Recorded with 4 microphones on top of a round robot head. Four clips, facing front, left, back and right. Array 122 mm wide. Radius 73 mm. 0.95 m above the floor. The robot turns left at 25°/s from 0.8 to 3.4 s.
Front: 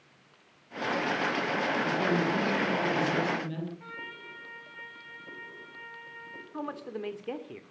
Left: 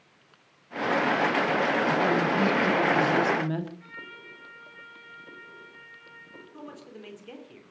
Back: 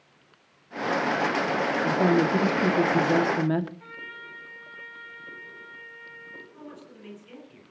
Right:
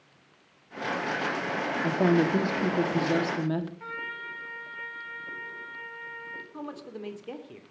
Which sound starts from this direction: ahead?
A man speaking, at 6.5 s.